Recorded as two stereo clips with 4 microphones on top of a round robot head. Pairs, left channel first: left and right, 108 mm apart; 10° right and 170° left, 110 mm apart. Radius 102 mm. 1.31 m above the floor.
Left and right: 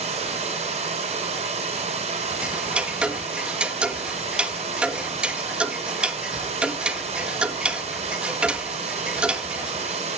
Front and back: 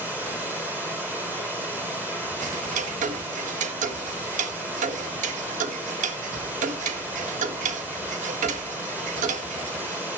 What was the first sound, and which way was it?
Running water, 110° right.